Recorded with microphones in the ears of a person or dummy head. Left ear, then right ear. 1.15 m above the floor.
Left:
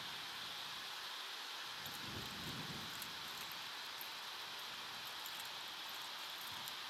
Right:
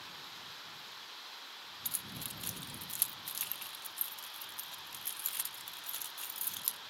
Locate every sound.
1.9 s keys jangling: 35° right (ahead or behind)